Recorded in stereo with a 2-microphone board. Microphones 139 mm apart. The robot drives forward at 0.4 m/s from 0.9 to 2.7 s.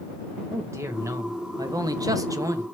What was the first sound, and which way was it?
A man speaking, 20° right (ahead or behind).